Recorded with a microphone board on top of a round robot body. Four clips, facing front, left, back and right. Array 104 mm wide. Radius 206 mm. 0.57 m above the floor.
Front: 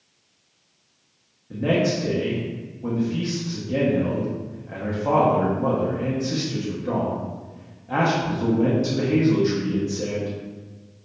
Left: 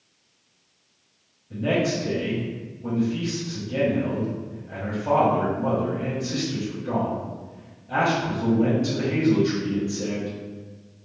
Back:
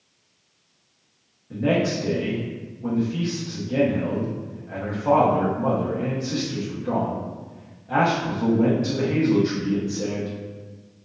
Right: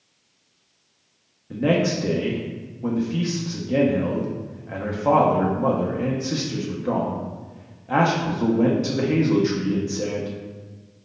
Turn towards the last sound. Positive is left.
turn(degrees=-85)